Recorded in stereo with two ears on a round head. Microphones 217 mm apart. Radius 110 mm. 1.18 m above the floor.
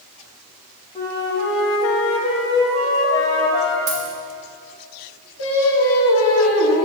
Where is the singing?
65° left (ahead or behind), 1.5 m.